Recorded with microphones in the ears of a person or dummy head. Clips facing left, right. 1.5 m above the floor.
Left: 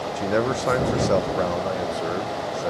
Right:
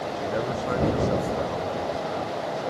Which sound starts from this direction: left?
A man speaking, at 0.2 s.